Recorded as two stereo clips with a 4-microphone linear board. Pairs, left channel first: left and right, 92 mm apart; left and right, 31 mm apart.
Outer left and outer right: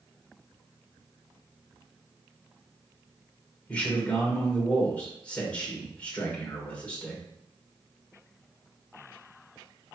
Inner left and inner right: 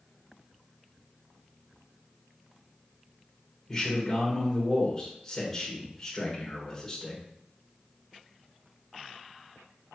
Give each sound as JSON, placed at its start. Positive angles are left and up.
{"t": 3.7, "sound": "a man speaking", "side_deg": 15, "distance_m": 2.5}